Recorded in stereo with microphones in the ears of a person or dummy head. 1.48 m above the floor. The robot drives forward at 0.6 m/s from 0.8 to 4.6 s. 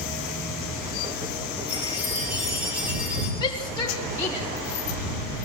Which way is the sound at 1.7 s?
5° right (ahead or behind).